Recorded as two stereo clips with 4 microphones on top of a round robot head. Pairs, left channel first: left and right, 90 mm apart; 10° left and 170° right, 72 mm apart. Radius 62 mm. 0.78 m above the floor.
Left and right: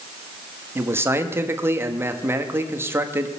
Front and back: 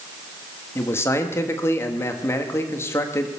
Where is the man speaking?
35° right, 1.5 m.